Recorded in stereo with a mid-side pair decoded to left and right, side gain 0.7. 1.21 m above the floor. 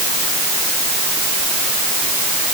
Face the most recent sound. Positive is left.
No sound to turn to.